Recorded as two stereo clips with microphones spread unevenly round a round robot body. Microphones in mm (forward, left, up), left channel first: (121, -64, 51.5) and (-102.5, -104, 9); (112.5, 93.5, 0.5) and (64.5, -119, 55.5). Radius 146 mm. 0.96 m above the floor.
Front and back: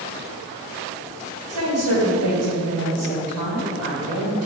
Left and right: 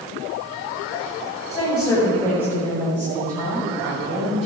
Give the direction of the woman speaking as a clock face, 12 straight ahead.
6 o'clock.